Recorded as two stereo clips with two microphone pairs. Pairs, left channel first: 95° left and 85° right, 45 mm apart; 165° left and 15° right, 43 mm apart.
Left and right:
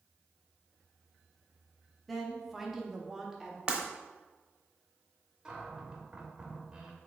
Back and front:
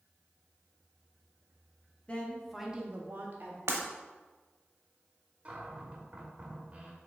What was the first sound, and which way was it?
A woman speaking, 170° right.